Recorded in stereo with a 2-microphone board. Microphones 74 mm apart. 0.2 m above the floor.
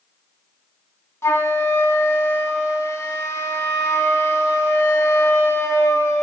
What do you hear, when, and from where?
1.2 s a flute: 35° left (ahead or behind), 1.2 m